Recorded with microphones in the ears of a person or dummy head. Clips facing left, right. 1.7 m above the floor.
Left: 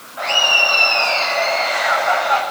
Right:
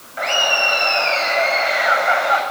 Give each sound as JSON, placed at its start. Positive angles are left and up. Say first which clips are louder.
{"t": 0.2, "sound": "laughter", "louder": "right 1 dB", "side_deg": -25, "distance_m": 8.5}